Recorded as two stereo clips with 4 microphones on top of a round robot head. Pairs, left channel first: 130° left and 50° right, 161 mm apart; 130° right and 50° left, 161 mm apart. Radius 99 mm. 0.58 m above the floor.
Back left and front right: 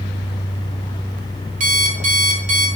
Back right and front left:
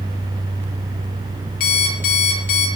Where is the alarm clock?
95° right, 4 m.